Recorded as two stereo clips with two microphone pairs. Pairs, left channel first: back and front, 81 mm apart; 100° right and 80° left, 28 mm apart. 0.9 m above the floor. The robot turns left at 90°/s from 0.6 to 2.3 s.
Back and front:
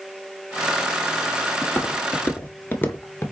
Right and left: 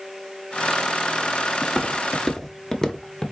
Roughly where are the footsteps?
Behind.